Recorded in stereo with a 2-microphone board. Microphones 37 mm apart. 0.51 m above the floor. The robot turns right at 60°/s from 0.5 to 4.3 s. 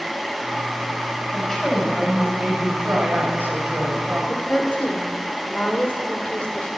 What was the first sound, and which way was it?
A woman speaking, 155° left.